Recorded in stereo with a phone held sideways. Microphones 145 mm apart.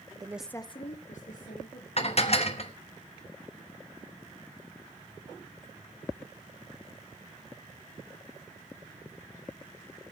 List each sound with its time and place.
0.2 s a woman speaking: 30° right (ahead or behind), 0.7 m; by 1.9 s 75° left (ahead or behind), 2.5 m
2.0 s dishes clattering: 50° left (ahead or behind), 1.0 m